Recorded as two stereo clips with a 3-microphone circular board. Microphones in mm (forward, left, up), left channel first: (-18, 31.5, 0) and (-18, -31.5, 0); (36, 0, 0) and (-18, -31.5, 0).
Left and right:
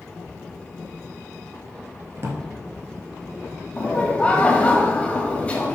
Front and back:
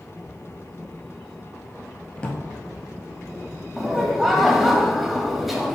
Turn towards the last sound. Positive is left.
turn(degrees=130)